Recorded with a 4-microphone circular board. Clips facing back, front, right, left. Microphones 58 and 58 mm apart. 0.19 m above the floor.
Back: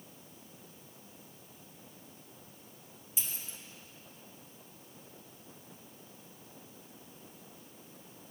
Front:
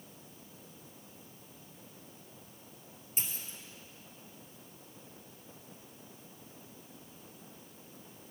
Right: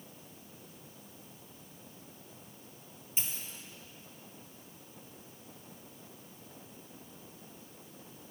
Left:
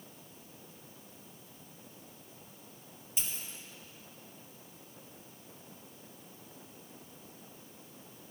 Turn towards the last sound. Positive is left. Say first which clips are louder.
# front 2 dB, right 1 dB
turn(degrees=-40)